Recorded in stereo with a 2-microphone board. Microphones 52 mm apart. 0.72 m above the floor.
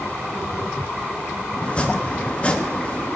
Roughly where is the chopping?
Left.